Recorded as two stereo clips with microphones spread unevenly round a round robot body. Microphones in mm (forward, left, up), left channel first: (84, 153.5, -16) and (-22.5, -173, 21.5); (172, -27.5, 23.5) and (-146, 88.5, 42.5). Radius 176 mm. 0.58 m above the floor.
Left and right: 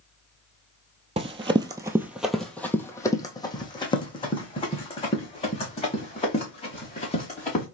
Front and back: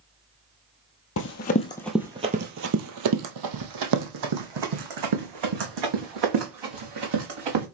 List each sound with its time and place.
1.2 s running footsteps: 55° right, 0.7 m; by 7.7 s 145° left, 3 m